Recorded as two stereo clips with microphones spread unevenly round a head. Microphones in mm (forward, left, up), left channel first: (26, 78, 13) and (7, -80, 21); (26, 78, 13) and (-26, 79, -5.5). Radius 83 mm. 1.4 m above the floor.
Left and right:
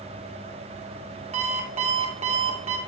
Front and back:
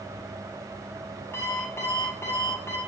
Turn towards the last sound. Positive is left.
turn(degrees=-50)